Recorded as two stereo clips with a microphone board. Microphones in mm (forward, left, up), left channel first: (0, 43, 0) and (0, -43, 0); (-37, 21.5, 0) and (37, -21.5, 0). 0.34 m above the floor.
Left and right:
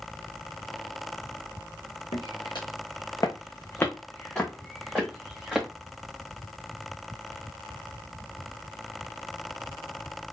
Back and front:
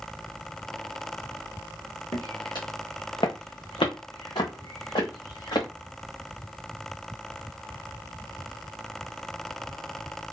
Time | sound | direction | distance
2.1 | footsteps | 110° left | 1.7 m